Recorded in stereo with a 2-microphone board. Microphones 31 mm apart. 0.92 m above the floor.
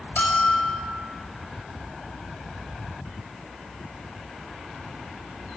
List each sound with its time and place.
0.2 s a bell: 70° left (ahead or behind), 5.5 m